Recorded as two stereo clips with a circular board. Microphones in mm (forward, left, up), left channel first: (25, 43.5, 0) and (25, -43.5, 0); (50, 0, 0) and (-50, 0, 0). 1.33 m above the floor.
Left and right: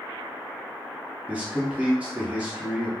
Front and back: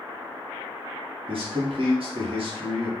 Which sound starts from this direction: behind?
A man speaking, at 1.3 s.